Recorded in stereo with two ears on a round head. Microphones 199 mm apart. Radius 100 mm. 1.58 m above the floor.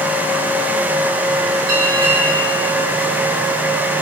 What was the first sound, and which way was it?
A bell, 70° right (ahead or behind).